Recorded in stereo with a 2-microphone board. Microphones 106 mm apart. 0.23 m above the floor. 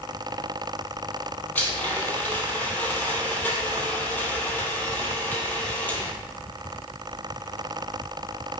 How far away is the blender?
About 2 m.